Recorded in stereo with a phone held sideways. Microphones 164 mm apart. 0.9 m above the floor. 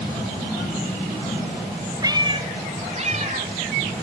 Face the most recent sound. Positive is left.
turn(degrees=-50)  # may be behind; listen again after turning